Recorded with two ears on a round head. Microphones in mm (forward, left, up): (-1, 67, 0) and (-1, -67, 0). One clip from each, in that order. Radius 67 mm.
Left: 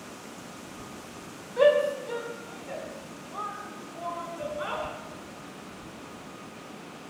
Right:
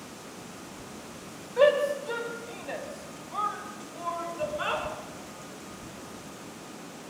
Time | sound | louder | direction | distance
1.6 | a shout | left 1 dB | 5° right (ahead or behind) | 2.5 m